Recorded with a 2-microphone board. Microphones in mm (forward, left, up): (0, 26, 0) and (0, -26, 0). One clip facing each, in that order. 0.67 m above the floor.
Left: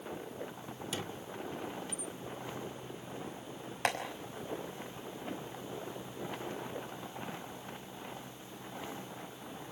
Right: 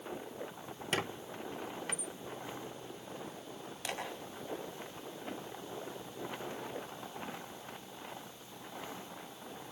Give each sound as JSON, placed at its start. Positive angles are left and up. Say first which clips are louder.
{"t": 0.9, "sound": "a squeak", "louder": "right 6 dB", "side_deg": -55, "distance_m": 0.6}
{"t": 3.9, "sound": "tapping", "louder": "left 9 dB", "side_deg": 55, "distance_m": 5.5}